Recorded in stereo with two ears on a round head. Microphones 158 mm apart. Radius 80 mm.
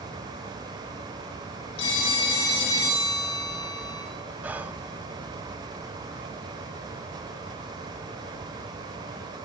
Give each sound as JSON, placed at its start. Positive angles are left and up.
{"t": 1.8, "sound": "a phone ringing", "side_deg": 70, "distance_m": 8.5}
{"t": 4.4, "sound": "whispering", "side_deg": -10, "distance_m": 0.7}